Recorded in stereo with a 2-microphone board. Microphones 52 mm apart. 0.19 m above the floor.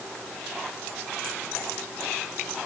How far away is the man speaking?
No man speaking in this recording.